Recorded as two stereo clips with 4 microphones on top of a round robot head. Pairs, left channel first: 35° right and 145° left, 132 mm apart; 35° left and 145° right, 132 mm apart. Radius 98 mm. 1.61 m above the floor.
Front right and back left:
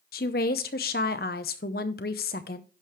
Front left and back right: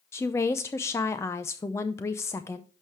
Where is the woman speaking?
30° right, 0.6 m.